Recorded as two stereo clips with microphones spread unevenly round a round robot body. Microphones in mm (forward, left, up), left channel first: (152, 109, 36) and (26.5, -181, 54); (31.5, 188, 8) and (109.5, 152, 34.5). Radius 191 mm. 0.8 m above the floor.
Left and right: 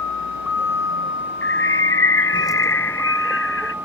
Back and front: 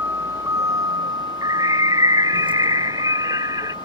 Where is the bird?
15° left.